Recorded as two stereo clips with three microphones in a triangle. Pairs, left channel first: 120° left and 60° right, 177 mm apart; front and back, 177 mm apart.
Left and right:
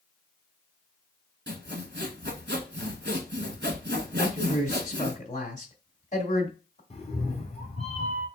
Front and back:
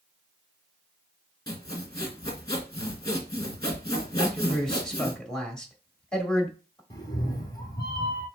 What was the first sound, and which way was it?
Sawing, 65° right.